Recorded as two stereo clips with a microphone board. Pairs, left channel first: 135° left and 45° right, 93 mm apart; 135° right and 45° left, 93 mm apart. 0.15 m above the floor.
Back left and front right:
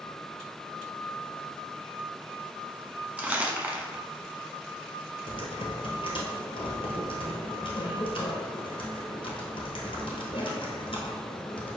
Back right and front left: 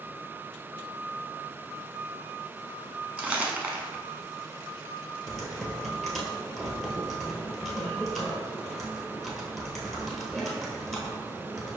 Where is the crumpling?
Straight ahead, 0.7 m.